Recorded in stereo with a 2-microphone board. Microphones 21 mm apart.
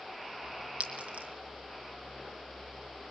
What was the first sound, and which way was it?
A clink, 80° right.